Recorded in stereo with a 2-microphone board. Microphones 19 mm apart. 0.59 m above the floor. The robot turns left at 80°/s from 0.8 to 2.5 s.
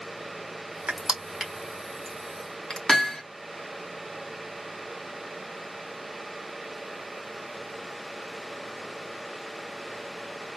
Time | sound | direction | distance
0.9 | crushing | 60° right (ahead or behind) | 1.3 m
2.9 | hammering | 30° left (ahead or behind) | 1.4 m